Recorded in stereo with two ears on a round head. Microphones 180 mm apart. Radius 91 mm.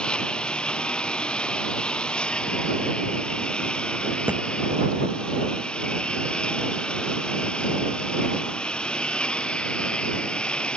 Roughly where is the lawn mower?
Centre.